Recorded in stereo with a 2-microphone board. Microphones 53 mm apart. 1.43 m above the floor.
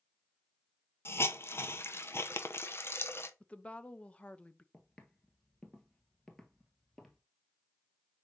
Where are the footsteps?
15° left (ahead or behind), 1.5 m; by 7.2 s 5° left (ahead or behind), 1.7 m.